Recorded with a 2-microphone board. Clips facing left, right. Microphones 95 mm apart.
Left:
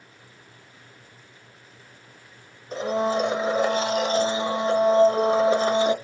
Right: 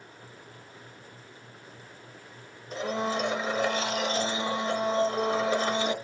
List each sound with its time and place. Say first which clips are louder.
2.7 s a blender: left 6 dB; 30° left (ahead or behind), 0.7 m